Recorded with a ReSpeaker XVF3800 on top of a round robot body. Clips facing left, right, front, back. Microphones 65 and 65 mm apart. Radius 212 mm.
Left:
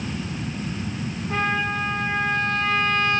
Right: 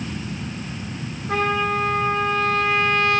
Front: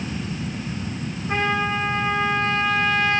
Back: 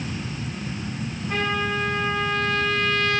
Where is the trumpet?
65° right, 4 m.